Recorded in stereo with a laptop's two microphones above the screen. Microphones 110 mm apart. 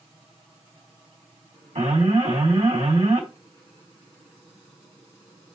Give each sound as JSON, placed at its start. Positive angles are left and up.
{"t": 1.8, "sound": "an alarm", "side_deg": -75, "distance_m": 3.0}